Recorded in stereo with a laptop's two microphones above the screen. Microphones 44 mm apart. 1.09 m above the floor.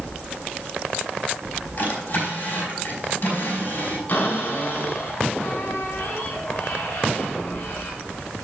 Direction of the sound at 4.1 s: 40° left (ahead or behind).